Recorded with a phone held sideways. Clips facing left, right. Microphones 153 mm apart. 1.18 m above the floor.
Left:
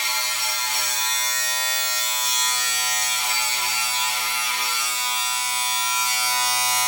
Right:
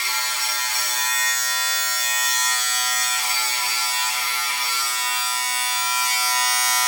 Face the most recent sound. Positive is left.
turn(degrees=20)  # may be behind; listen again after turning